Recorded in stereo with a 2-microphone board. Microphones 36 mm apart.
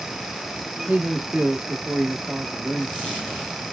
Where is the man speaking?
35° right (ahead or behind), 1.0 m.